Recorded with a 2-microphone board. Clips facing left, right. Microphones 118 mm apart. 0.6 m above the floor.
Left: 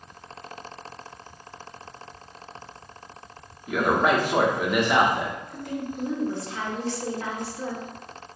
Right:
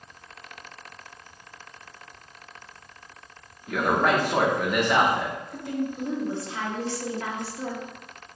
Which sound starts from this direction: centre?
A man speaking, at 3.7 s.